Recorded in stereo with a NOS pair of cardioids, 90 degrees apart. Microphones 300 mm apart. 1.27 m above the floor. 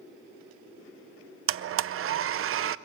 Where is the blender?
50° right, 0.6 m.